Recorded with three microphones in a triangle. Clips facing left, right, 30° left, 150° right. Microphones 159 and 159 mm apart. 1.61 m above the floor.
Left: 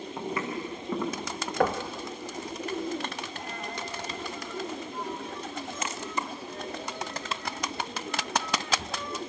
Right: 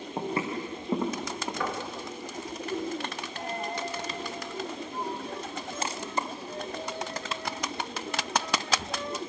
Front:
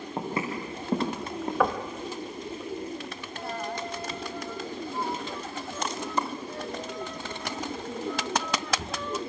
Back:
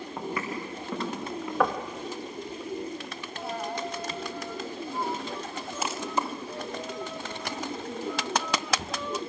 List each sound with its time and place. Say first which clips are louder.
0.2 s footsteps: right 2 dB, front 2 dB; 35° right, 5.5 m; by 1.5 s 20° right, 5.5 m
1.6 s knocking: left 9 dB, even; 120° left, 1.9 m
3.4 s a dropped coin: right 4 dB, back 1 dB; 70° right, 1.1 m